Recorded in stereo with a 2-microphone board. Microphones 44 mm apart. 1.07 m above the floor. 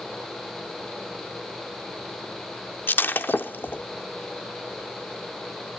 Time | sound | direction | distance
2.9 | breaking glass | 45° left (ahead or behind) | 0.8 m